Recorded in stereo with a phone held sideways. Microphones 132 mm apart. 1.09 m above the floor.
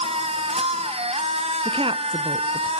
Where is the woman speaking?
45° right (ahead or behind), 0.7 m.